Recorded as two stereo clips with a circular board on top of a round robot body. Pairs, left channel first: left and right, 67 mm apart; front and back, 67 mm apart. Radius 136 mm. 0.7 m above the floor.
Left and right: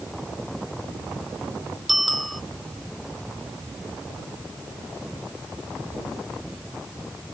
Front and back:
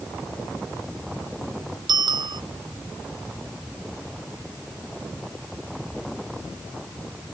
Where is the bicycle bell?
Straight behind.